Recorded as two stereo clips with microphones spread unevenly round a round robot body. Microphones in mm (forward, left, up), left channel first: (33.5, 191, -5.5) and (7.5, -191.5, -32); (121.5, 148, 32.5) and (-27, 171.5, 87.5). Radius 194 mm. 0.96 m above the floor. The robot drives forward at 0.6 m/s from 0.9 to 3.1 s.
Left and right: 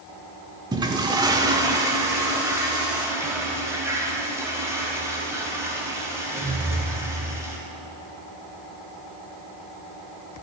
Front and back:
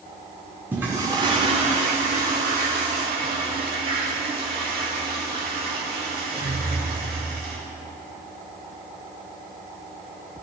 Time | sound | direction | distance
0.7 | a toilet flushing | 170° right | 0.6 m